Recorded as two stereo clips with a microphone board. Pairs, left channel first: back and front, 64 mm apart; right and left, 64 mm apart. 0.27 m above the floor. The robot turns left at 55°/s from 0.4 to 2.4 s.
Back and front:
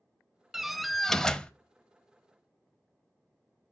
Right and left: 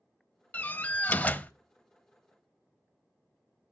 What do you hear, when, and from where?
0.5 s a door slam: 75° right, 0.6 m; by 1.5 s 125° right, 0.6 m